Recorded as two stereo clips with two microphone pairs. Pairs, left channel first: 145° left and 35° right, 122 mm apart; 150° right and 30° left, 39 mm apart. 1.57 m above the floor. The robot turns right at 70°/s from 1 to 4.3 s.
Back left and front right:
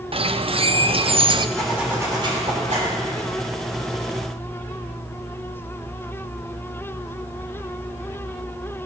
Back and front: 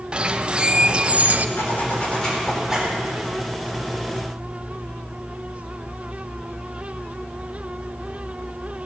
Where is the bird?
35° right, 0.6 m; by 1.5 s straight ahead, 0.6 m.